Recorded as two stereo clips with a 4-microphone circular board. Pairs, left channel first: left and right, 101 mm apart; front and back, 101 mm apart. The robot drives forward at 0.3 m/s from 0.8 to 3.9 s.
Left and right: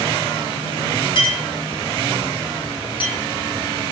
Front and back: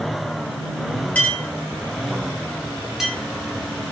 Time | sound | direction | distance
1.1 | a clink | 70° left | 1.7 m